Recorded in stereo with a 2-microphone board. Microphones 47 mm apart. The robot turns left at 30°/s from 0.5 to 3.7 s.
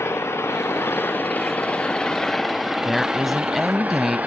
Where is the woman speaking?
5° left (ahead or behind); by 4.2 s 5° right (ahead or behind).